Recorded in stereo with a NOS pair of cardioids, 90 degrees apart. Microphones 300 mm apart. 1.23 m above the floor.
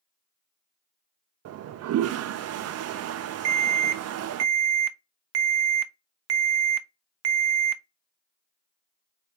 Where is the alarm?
60° right, 0.5 m.